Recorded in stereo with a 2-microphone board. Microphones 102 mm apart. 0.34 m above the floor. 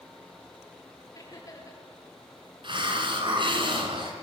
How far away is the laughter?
About 6.5 m.